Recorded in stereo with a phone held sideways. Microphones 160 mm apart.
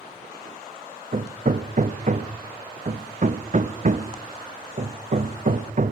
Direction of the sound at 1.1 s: 50° right (ahead or behind).